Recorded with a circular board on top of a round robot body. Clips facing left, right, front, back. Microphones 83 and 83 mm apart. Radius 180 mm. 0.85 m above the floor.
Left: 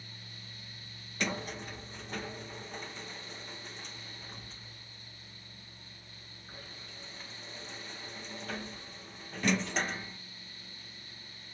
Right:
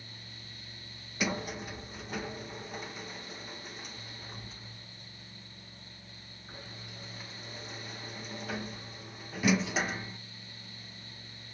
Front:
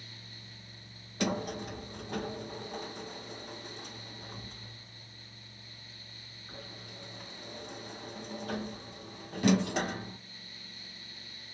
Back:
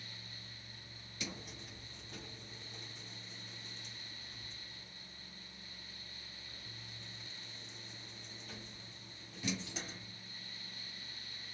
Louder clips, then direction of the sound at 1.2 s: Right 2 dB, front 16 dB; 5° right.